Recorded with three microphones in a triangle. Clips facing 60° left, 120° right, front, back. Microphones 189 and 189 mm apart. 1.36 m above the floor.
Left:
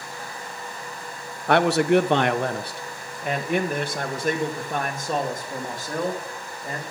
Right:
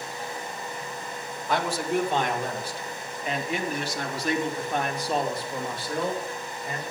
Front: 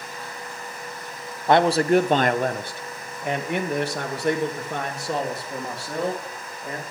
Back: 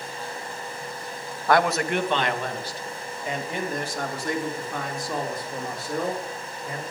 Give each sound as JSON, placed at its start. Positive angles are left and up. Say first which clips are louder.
{"t": 1.5, "sound": "a man speaking", "louder": "left 9 dB, front 4 dB", "azimuth_deg": 70, "distance_m": 0.8}